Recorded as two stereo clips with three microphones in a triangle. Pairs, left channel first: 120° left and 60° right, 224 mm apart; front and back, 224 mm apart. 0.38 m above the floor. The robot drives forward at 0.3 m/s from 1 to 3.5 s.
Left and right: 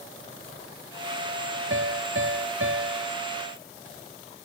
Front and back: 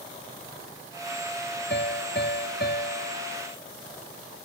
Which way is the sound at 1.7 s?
35° right.